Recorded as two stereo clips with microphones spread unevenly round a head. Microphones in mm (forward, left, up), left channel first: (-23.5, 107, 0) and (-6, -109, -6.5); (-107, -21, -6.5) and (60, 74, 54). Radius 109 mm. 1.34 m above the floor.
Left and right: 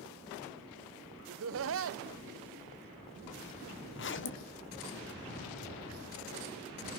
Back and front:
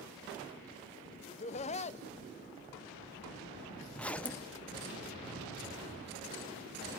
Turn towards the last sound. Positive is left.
turn(degrees=130)